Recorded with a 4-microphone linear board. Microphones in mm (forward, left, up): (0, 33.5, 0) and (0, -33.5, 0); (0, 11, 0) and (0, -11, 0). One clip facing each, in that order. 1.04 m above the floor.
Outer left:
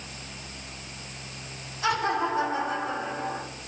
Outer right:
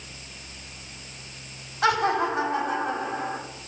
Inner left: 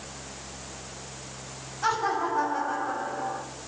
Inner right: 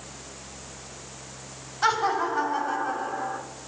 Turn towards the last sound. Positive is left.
turn(degrees=-70)  # may be behind; listen again after turning